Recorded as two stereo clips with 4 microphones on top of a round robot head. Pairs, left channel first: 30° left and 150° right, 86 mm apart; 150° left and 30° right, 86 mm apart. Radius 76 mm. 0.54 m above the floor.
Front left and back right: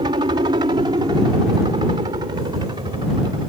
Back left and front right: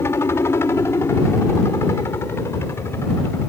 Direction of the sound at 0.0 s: 155° right.